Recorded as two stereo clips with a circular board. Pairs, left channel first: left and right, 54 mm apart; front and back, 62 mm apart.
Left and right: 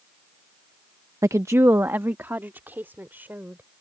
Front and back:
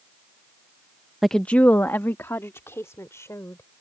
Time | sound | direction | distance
1.2 | a woman speaking | 95° right | ?